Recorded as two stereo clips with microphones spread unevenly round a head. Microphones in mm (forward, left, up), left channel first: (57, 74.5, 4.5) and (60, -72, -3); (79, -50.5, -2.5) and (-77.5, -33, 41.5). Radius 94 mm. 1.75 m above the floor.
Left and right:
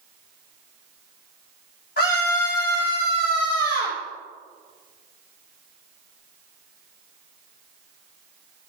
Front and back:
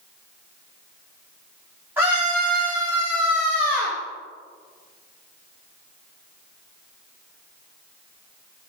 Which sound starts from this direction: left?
A scream, at 2.0 s.